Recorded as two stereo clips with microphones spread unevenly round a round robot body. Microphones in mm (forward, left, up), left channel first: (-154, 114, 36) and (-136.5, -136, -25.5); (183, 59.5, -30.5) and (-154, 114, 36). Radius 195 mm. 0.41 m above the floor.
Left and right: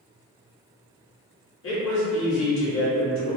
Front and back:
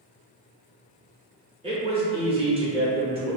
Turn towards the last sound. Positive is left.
turn(degrees=90)